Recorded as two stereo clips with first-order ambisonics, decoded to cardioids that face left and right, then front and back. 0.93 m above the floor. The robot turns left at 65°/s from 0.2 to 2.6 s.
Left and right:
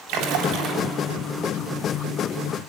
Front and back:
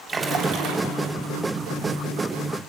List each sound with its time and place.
0.1 s a splash: 110° right, 3 m; by 0.8 s 150° right, 3 m